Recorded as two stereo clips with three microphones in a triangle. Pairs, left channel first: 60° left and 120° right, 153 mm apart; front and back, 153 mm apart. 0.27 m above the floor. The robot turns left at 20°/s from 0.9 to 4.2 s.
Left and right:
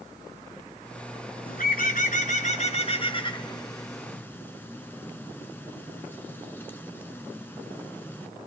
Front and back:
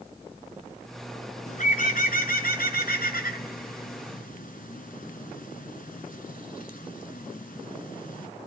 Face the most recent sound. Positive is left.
turn(degrees=-15)